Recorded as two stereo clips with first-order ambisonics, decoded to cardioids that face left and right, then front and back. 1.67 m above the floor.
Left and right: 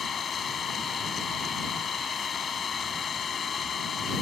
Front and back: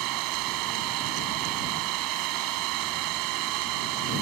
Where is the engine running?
155° left.